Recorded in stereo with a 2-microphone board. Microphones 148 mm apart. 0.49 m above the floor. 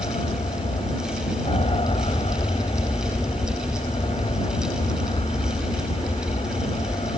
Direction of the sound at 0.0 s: 40° left (ahead or behind).